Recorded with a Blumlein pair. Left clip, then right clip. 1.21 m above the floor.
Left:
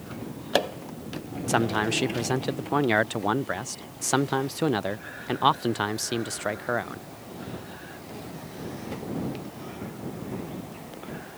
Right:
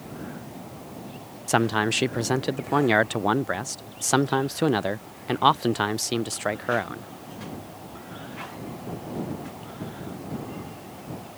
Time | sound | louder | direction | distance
1.5 | a man speaking | right 2 dB | 10° right | ?